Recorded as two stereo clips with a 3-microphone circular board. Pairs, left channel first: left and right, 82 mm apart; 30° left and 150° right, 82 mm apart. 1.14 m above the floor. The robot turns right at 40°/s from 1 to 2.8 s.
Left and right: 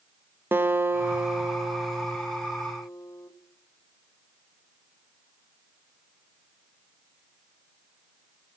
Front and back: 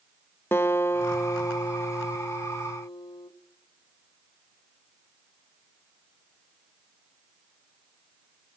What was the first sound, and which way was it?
A guitar, 30° right.